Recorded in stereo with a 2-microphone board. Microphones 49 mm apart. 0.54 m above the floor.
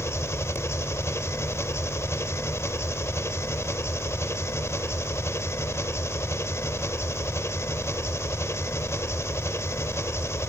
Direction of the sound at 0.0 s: 70° left (ahead or behind).